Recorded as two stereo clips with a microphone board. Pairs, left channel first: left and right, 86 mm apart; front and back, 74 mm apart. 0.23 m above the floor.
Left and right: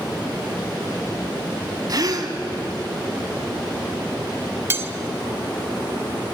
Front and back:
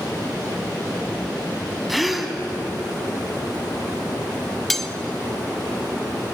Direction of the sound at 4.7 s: 85° right.